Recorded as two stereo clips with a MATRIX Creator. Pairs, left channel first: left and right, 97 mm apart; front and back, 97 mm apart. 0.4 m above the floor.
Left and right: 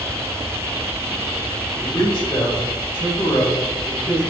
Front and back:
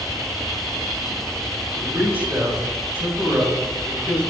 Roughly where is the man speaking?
Behind left.